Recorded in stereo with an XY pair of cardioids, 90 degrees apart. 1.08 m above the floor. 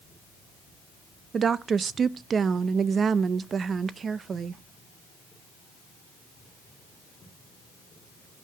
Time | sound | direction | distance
1.3 | a woman speaking | 50° right | 0.5 m